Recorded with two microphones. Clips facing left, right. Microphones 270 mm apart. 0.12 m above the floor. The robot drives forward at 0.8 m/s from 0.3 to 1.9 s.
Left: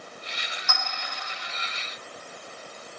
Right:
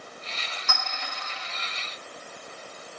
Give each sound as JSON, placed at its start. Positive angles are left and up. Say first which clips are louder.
{"t": 0.7, "sound": "a clink", "louder": "even", "side_deg": -75, "distance_m": 2.0}